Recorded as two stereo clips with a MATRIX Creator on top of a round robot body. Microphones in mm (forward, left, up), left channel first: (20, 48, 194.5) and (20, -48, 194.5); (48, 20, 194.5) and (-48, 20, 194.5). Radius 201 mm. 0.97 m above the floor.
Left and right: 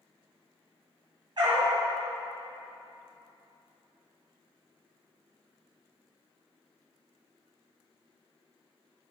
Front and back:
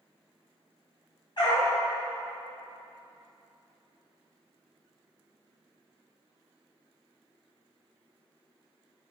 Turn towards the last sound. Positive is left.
turn(degrees=-45)